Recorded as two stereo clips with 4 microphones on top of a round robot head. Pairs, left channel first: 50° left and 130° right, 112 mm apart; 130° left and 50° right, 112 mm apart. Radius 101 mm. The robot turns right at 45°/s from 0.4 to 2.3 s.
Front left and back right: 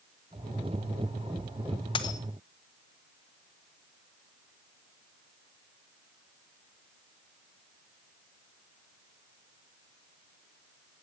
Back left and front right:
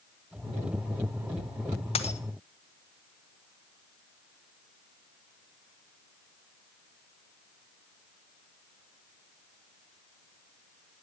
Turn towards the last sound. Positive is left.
turn(degrees=115)